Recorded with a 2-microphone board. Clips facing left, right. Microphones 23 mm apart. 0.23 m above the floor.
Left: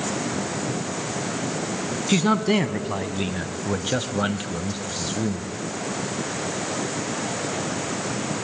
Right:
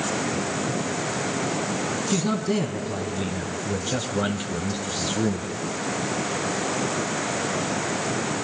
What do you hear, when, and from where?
2.1 s a man speaking: 45° left (ahead or behind), 1.7 m; by 5.5 s 20° right (ahead or behind), 1.1 m